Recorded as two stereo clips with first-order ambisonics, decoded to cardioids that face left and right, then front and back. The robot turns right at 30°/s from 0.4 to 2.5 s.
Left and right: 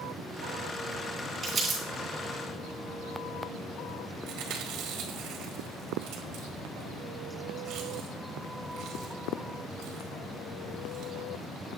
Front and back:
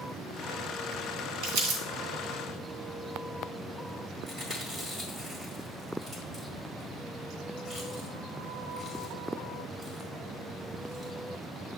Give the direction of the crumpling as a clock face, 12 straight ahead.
6 o'clock.